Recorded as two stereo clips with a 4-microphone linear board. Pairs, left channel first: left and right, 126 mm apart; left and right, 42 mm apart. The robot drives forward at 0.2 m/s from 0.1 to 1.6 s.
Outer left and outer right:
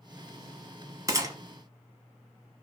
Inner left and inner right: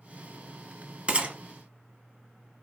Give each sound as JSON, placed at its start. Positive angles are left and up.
{"t": 1.1, "sound": "a gunshot", "side_deg": -25, "distance_m": 0.6}